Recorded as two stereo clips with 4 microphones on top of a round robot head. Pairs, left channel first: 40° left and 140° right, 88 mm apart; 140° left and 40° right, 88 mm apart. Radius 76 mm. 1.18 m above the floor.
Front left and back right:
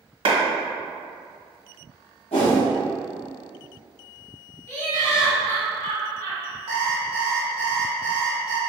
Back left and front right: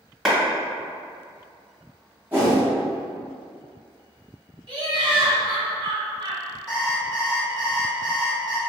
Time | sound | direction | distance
0.2 | a clap | 130° right | 1.2 m
2.3 | a whoosh | 30° left | 0.9 m
4.7 | laughter | 15° right | 1.5 m
6.7 | an alarm clock | 130° right | 0.9 m